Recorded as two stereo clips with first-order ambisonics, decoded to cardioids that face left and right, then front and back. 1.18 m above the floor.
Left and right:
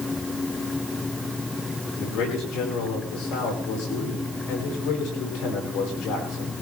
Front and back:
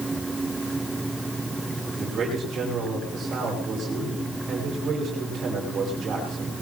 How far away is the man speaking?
About 10 m.